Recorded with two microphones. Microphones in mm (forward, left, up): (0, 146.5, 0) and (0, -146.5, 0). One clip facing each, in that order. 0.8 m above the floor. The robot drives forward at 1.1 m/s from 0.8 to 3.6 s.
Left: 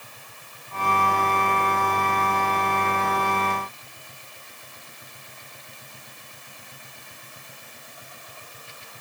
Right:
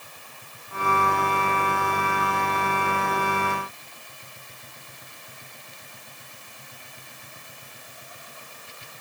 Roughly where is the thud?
No thud in this recording.